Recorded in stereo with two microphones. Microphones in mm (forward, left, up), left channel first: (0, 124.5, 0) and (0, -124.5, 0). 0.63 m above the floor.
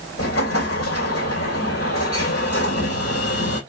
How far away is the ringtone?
No ringtone in this recording.